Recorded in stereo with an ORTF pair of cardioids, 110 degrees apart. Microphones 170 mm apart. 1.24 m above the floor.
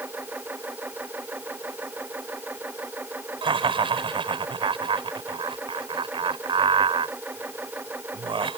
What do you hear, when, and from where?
0.0 s a machine running: 10° right
3.4 s laughter: 30° right